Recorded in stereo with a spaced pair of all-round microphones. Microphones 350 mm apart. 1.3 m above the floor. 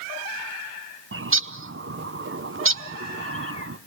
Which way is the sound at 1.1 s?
35° right (ahead or behind).